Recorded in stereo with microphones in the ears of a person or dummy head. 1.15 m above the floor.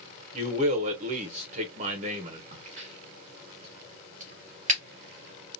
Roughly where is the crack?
Right.